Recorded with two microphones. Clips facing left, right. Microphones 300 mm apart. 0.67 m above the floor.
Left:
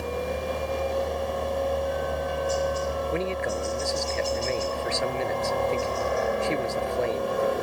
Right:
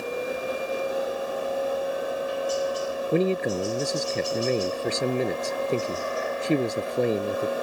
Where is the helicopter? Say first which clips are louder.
Even; 65° left (ahead or behind).